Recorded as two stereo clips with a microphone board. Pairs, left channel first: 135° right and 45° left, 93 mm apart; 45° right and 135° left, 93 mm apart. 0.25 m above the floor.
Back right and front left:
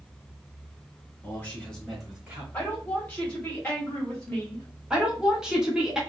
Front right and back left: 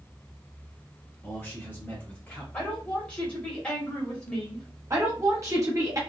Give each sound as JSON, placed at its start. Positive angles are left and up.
{"t": 1.2, "sound": "a man speaking", "azimuth_deg": -90, "distance_m": 1.8}
{"t": 2.5, "sound": "a woman speaking", "azimuth_deg": -100, "distance_m": 1.5}
{"t": 4.9, "sound": "a woman speaking", "azimuth_deg": 120, "distance_m": 1.3}